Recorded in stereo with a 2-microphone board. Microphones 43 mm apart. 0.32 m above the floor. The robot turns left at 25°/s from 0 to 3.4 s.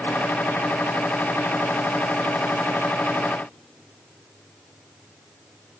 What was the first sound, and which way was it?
Only background noise.